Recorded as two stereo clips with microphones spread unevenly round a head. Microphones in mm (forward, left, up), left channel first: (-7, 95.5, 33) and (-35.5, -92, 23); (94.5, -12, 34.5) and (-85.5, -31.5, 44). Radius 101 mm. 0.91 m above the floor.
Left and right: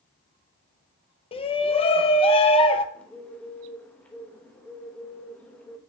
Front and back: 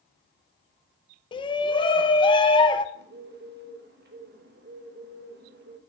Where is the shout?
40° left, 0.6 m.